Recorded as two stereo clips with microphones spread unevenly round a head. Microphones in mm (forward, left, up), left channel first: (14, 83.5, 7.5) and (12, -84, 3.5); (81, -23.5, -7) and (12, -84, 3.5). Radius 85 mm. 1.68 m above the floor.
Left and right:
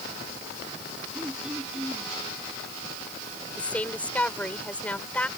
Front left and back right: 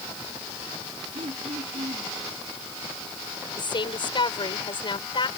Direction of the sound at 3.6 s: 5° left.